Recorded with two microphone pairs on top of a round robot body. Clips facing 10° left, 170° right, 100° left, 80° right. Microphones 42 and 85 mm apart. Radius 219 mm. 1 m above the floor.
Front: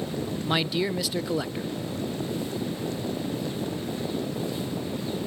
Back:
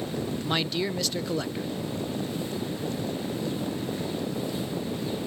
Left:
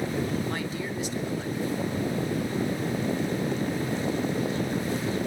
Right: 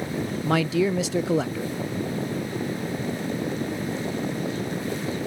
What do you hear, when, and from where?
0.4 s a man speaking: 75° right, 0.6 m